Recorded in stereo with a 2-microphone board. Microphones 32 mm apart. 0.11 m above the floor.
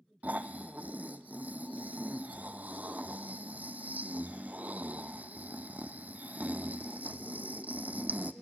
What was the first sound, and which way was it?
Snoring, 50° right (ahead or behind).